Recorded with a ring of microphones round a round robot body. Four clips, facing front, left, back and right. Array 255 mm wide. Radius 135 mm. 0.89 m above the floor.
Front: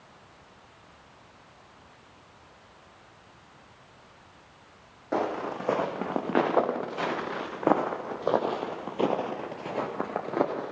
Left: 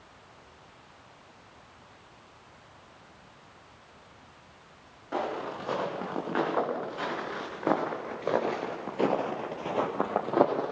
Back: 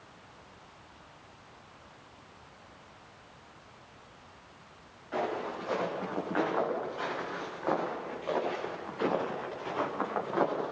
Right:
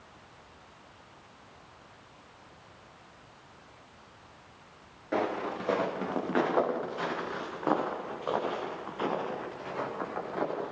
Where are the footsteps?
20° right, 7.5 m; by 10.7 s 70° left, 5.5 m.